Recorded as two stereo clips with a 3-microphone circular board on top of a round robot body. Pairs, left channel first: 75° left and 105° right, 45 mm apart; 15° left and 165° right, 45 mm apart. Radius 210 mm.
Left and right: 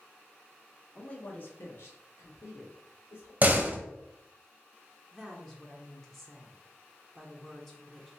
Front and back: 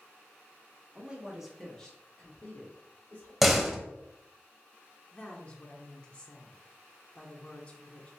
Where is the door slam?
80° right, 0.9 m.